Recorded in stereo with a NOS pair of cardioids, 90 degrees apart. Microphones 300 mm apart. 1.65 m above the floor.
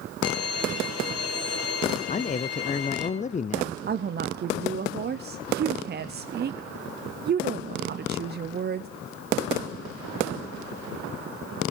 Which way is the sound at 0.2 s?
55° left.